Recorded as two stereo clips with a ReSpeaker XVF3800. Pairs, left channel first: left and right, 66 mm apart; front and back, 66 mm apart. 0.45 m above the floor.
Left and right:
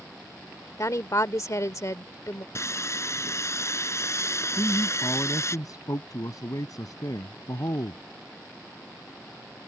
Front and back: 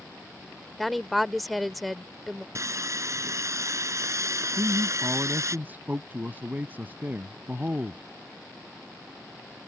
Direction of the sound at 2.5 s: 140° left.